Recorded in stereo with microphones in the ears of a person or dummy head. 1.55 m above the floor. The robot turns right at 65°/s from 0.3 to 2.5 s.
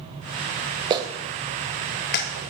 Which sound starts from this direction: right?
A clap, at 0.9 s.